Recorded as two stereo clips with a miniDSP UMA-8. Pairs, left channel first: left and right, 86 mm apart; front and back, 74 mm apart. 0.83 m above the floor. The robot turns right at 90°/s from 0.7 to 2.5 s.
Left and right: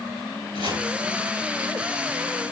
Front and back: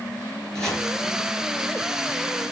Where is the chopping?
85° right, 5.5 m; by 0.9 s 70° right, 5.5 m.